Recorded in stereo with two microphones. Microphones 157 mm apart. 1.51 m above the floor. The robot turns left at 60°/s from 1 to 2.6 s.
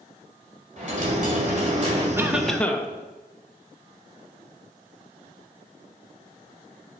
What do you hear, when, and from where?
0.8 s a dropped coin: 70° right, 2 m; by 2.1 s 135° right, 2 m
2.2 s a cough: 15° right (ahead or behind), 0.9 m; by 2.9 s 10° left (ahead or behind), 0.9 m